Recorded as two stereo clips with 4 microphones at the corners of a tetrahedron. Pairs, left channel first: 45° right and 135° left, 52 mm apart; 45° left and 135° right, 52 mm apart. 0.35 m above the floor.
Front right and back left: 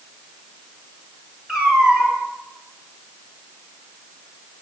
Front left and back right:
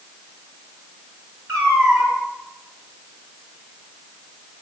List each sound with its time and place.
1.5 s a cat meowing: 140° right, 1.7 m